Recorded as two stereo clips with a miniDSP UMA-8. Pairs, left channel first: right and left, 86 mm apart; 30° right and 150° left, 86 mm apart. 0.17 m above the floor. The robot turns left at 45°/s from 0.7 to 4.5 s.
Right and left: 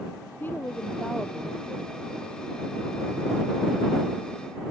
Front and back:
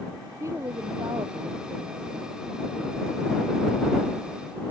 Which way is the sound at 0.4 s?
155° right.